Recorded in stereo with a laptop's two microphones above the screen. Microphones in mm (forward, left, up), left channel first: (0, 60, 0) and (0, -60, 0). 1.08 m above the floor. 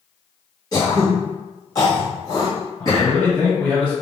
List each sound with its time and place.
0.7 s throat clearing: 30° left (ahead or behind), 1.7 m
2.8 s a man speaking: 15° left (ahead or behind), 2 m